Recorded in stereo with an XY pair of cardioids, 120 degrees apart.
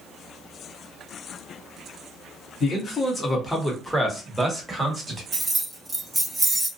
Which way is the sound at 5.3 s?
10° right.